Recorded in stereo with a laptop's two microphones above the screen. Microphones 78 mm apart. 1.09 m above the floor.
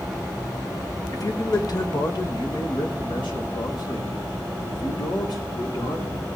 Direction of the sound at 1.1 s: 45° left (ahead or behind).